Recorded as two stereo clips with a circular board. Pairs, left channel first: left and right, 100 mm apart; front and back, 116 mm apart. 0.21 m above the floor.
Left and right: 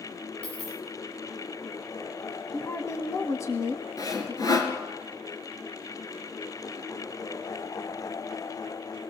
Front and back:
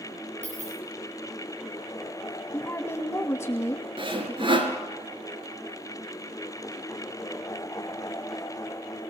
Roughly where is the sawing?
Behind left.